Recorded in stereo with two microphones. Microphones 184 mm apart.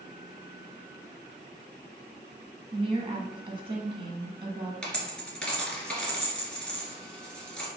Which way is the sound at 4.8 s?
5° left (ahead or behind).